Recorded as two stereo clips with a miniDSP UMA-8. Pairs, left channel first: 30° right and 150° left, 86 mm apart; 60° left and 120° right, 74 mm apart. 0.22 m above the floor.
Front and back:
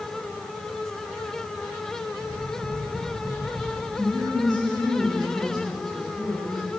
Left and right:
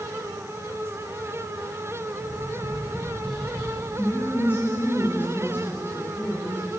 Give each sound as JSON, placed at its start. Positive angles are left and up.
{"t": 2.1, "sound": "tapping", "azimuth_deg": 140, "distance_m": 5.0}
{"t": 4.0, "sound": "a woman speaking", "azimuth_deg": 120, "distance_m": 5.0}